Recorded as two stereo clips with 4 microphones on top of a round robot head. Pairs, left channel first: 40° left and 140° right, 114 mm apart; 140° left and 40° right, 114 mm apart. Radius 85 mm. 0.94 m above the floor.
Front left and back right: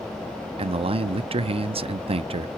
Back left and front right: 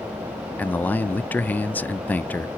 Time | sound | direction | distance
0.6 | a man speaking | 145° right | 0.5 m